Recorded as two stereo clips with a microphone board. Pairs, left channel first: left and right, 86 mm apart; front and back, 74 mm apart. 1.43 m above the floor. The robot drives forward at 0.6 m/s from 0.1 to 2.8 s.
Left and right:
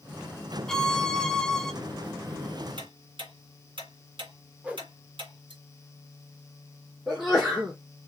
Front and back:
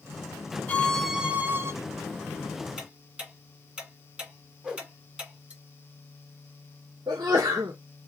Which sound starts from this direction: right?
Ticking, at 2.8 s.